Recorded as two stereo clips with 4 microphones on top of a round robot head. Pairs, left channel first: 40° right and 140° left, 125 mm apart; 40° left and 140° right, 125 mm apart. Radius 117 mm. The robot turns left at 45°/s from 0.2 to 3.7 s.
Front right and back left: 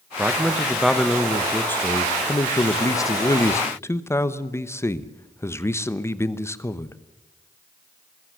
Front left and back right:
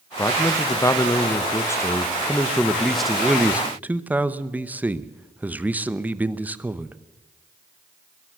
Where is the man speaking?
80° left, 1.1 m; by 7.0 s 80° right, 1.1 m.